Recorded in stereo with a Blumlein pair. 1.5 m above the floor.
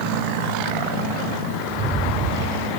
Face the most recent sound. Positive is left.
turn(degrees=-25)